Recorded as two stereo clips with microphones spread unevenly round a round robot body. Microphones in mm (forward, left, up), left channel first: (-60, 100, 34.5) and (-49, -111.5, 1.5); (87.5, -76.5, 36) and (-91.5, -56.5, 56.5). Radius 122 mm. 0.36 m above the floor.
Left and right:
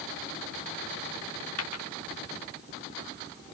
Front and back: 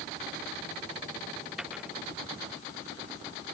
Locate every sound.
1.6 s a dropped coin: 85° left